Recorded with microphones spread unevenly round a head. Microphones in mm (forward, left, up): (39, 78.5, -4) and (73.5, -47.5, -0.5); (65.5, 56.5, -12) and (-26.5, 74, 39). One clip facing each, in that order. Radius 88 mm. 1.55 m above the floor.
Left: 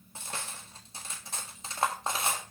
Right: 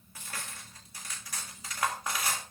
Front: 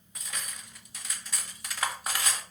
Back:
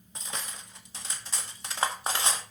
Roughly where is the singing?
No singing in this recording.